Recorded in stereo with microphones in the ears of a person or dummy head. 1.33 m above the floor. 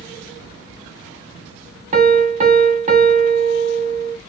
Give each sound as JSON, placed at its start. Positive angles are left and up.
{"t": 1.9, "sound": "a piano", "side_deg": -35, "distance_m": 0.7}